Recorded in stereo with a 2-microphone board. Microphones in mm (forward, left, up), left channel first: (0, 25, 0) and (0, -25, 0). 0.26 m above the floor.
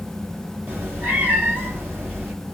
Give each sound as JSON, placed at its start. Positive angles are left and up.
{"t": 0.7, "sound": "a cat meowing", "side_deg": -35, "distance_m": 2.0}